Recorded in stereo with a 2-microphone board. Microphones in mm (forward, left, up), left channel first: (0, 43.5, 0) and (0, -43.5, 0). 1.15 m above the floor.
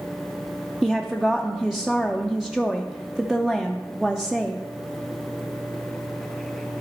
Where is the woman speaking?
5° right (ahead or behind), 0.5 m.